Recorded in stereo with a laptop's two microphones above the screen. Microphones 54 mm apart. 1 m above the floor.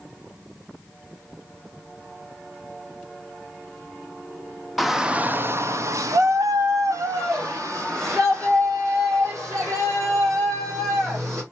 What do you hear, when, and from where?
4.8 s a shout: centre (ahead or behind), 0.5 m; by 11.4 s 65° right (ahead or behind), 3.5 m